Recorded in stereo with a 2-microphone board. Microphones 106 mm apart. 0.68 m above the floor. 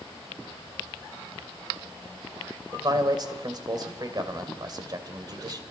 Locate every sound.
2.7 s a man speaking: 40° right (ahead or behind), 2.5 m